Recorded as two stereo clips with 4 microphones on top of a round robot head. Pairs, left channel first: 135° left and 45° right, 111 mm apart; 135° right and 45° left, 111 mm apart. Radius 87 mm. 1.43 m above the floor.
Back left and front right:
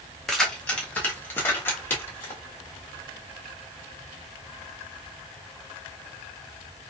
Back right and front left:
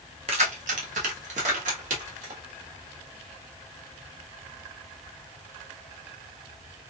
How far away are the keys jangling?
About 0.6 m.